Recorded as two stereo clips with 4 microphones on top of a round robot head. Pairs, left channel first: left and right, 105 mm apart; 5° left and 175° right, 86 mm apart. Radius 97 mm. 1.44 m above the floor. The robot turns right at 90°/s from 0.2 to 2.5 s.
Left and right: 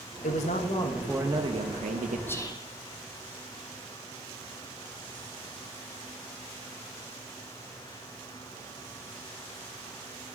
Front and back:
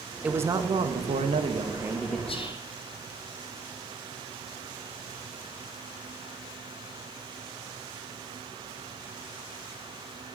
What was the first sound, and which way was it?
A man speaking, 105° left.